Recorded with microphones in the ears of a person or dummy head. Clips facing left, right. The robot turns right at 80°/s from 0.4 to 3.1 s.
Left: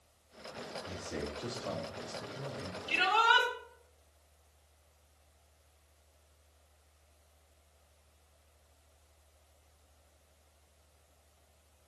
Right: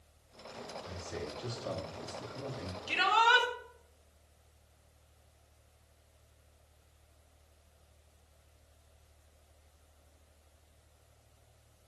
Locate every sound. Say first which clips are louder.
0.8 s a man speaking: left 2 dB; 115° left, 3.5 m; by 2.8 s 95° right, 3.5 m
2.9 s a shout: right 1 dB; 85° right, 2.5 m; by 3.5 s 70° right (ahead or behind), 2.5 m